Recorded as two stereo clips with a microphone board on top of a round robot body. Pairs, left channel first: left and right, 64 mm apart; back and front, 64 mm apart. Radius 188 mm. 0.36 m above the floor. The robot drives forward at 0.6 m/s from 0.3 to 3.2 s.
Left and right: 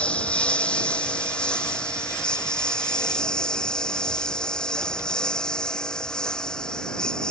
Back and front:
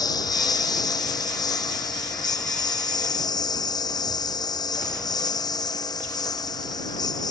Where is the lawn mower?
165° left; by 7.3 s 170° left.